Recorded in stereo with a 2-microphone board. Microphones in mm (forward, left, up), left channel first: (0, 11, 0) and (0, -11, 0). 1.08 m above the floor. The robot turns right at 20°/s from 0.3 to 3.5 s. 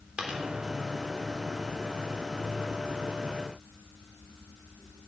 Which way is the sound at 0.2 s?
60° right (ahead or behind).